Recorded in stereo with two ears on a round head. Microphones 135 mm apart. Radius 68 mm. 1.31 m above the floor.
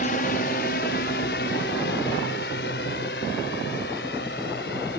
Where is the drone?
55° left (ahead or behind); by 5.0 s 75° left (ahead or behind).